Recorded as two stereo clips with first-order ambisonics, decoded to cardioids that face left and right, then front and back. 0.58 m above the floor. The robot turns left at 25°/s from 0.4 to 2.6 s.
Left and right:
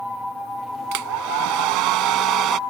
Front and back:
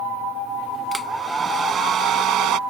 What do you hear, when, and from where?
0.9 s a hair dryer: 95° right; by 2.6 s 140° right